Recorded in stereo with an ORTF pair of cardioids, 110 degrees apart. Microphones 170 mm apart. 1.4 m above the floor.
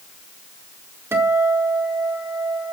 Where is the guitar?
15° right, 4.5 m.